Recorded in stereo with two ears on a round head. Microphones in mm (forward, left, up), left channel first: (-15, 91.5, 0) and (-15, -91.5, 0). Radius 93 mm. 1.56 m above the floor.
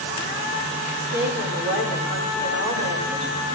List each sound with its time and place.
1.0 s a woman speaking: 65° right (ahead or behind), 9 m